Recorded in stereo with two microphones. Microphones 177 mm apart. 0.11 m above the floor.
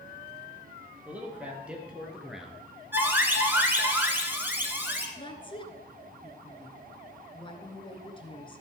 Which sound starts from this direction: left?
A woman speaking, at 5.2 s.